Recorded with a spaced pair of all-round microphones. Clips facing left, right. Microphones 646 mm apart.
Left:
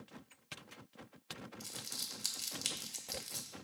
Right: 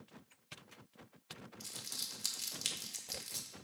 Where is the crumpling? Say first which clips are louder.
Left 3 dB; 10° right (ahead or behind), 0.8 m.